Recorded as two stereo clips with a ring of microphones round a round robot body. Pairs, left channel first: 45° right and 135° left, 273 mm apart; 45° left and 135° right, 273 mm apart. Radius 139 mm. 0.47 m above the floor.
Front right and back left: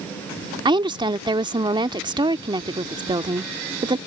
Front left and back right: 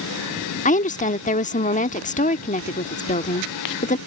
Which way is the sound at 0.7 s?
75° left.